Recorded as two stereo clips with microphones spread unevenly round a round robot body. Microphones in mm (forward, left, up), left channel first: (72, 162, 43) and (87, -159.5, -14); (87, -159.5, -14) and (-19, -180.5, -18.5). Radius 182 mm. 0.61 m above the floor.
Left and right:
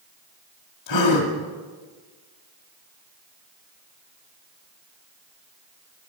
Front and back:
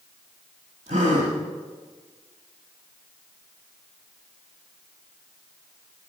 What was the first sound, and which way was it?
A gasp, 135° left.